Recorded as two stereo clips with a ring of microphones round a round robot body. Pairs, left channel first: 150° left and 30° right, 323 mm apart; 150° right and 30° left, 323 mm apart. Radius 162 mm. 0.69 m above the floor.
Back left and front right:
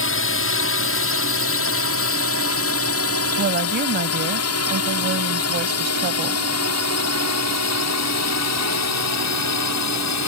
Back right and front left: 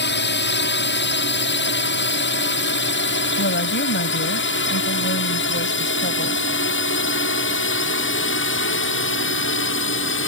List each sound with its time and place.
0.0 s a drone: 175° left; by 10.3 s 165° left
3.4 s a woman speaking: 90° right